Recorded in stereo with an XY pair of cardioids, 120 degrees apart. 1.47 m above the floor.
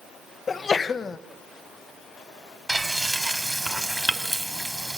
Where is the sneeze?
30° left, 1.7 m.